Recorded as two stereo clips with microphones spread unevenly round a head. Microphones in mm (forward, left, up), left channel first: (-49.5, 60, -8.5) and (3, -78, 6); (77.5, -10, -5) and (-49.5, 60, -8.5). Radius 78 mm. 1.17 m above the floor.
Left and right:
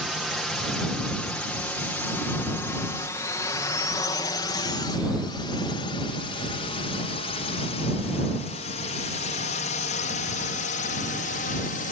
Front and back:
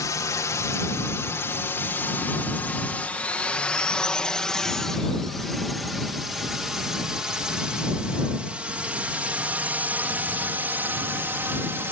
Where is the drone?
25° left; by 11.9 s 80° left.